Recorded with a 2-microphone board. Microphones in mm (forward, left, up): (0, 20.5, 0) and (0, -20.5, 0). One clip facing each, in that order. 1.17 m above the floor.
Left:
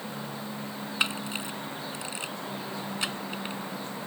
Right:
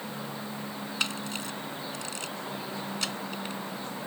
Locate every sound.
1.0 s a camera shutter: 20° left (ahead or behind)